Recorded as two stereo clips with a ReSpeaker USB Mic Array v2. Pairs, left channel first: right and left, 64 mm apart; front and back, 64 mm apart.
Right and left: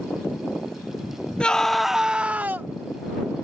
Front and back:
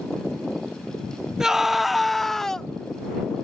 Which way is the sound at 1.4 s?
125° right.